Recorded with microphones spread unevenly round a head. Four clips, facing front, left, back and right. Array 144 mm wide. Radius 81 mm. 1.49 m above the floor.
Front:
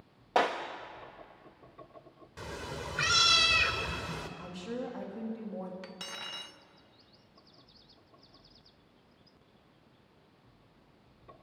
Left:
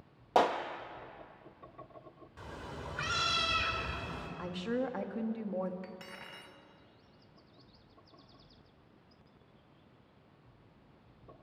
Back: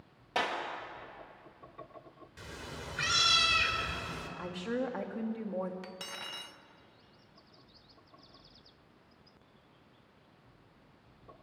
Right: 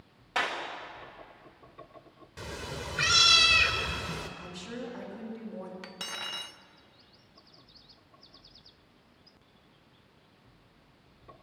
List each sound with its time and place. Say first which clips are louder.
0.3 s a clap: left 5 dB, front 5 dB; 60° left, 1.2 m
2.4 s a cat meowing: right 5 dB, front 5 dB; 60° right, 2.5 m
4.4 s a woman speaking: left 5 dB, back 6 dB; 155° left, 2.5 m
5.8 s cutlery clinking: right 5 dB, even; 115° right, 0.8 m